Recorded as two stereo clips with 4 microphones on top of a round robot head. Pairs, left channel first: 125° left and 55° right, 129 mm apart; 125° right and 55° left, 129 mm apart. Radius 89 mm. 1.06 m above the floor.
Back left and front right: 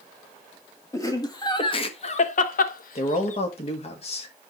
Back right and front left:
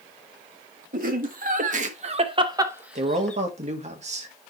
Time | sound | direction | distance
0.9 | laughter | 60° left | 2 m
3.0 | a man speaking | 85° left | 1.8 m